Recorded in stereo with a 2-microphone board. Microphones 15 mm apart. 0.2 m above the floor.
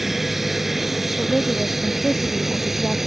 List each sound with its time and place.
0.0 s an aircraft: 20° right (ahead or behind); by 3.1 s 25° right (ahead or behind)
1.2 s a woman speaking: 80° left